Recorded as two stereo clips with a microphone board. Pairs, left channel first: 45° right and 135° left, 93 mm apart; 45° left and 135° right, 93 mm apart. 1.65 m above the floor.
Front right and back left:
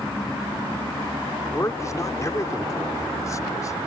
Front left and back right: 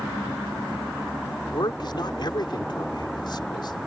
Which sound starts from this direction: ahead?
A man speaking, at 1.5 s.